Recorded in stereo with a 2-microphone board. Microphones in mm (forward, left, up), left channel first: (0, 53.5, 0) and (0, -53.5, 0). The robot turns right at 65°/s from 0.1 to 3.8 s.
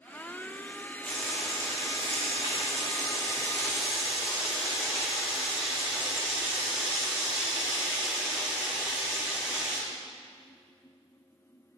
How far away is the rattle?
I don't hear a rattle.